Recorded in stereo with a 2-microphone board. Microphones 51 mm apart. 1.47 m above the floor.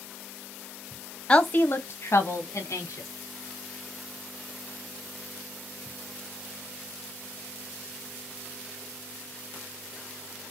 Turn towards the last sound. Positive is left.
turn(degrees=80)